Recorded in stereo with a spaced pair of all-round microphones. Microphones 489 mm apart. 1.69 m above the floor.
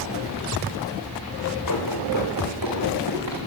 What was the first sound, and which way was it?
Running footsteps, 40° left (ahead or behind).